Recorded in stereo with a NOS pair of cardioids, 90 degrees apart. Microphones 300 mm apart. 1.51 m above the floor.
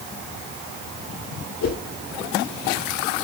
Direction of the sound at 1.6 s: 60° left.